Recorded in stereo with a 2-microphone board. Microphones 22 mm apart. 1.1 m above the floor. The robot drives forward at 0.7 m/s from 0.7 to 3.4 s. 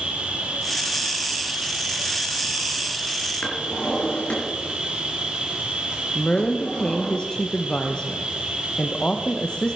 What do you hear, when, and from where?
0.0 s an insect: 70° right (ahead or behind), 2 m; by 9.8 s 55° right (ahead or behind), 2.5 m
3.4 s a drawer: 70° left (ahead or behind), 3.5 m
6.2 s a woman speaking: 45° left (ahead or behind), 0.9 m